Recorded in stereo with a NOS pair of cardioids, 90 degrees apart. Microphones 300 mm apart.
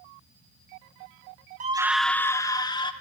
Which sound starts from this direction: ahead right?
A scream, at 1.6 s.